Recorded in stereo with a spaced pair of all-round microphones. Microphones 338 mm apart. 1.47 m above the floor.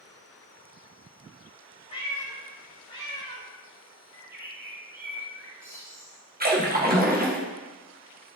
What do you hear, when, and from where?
1.9 s a cat meowing: 20° left (ahead or behind), 2.5 m; by 3.5 s 15° left (ahead or behind), 3 m
4.1 s a bird: 10° right (ahead or behind), 3 m
6.4 s a splash: 25° right (ahead or behind), 1.0 m